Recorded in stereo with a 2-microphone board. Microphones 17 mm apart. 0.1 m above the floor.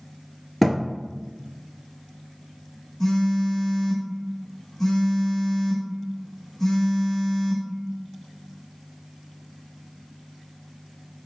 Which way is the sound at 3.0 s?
30° left (ahead or behind).